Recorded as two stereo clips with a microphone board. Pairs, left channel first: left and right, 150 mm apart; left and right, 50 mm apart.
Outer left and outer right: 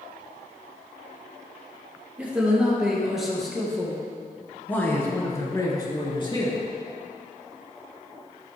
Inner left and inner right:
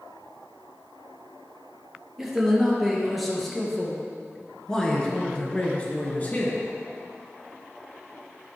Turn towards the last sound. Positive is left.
turn(degrees=35)  # may be behind; listen again after turning